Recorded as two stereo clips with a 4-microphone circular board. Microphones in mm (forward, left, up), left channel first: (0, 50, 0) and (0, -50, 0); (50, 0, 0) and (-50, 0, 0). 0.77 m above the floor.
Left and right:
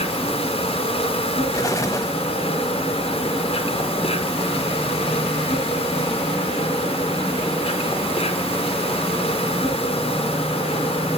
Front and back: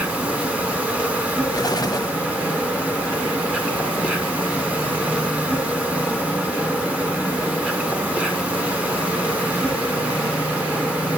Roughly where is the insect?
Left.